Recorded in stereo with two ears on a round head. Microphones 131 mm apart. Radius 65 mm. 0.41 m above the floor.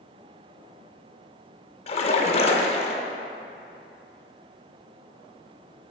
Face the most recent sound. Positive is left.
turn(degrees=45)  # may be behind; listen again after turning